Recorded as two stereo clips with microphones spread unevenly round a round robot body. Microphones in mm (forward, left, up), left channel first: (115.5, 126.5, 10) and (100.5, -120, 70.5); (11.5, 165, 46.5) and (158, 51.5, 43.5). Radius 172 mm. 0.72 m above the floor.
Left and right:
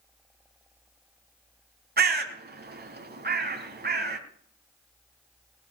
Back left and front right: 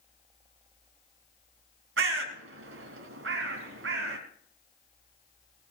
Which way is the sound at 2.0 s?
45° right.